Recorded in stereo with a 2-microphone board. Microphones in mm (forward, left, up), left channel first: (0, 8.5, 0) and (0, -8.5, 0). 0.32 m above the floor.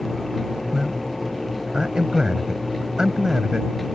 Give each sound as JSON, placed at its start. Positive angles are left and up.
{"t": 0.7, "sound": "a man speaking", "side_deg": -50}